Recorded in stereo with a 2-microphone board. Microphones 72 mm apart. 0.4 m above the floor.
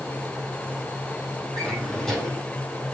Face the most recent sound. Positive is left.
turn(degrees=5)  # may be behind; listen again after turning